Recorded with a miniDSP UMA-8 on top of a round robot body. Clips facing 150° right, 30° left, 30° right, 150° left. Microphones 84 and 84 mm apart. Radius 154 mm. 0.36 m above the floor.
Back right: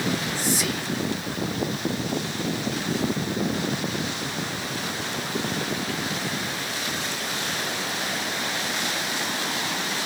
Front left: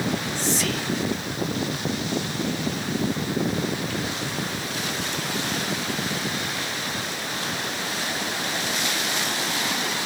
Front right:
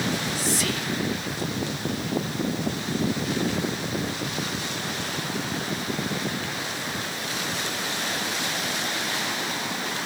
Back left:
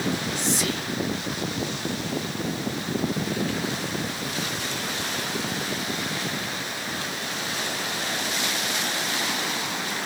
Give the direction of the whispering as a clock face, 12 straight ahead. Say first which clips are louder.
Front left 1 dB, even; 7 o'clock.